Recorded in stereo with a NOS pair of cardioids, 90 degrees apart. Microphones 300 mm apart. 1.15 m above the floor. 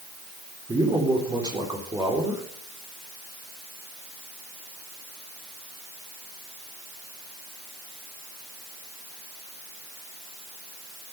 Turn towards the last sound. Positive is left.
turn(degrees=-15)